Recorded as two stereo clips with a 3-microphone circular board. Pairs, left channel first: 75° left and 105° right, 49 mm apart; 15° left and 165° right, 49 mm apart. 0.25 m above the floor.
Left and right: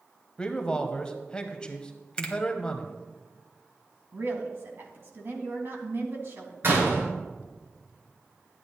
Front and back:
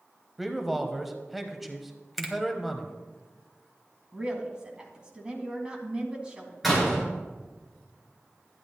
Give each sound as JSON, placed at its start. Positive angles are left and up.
{"t": 0.4, "sound": "a man speaking", "azimuth_deg": 110, "distance_m": 1.0}
{"t": 2.2, "sound": "a finger snap", "azimuth_deg": 105, "distance_m": 1.2}
{"t": 4.1, "sound": "a woman speaking", "azimuth_deg": -100, "distance_m": 2.0}
{"t": 6.6, "sound": "a door slam", "azimuth_deg": -75, "distance_m": 3.0}